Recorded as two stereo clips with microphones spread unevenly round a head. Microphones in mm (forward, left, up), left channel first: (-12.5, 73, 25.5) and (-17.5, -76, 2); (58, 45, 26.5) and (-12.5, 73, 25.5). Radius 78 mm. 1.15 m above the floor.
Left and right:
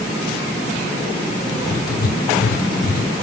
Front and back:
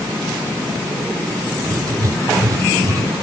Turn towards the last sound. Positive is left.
turn(degrees=115)